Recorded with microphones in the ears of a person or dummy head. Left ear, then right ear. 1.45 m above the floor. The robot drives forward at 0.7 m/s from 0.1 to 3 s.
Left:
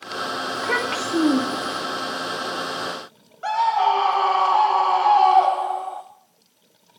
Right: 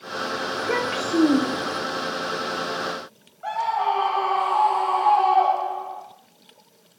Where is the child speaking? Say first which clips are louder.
Left 2 dB; 50° left (ahead or behind), 1.4 m; by 1.8 s 35° left (ahead or behind), 2 m.